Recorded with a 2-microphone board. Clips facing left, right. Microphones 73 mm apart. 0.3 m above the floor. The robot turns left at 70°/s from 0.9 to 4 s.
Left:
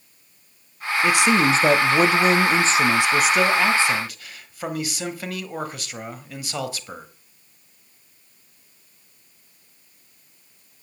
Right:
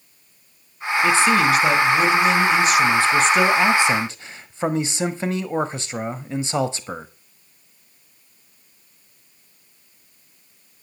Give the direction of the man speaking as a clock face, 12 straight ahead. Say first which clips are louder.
Right 1 dB; 6 o'clock.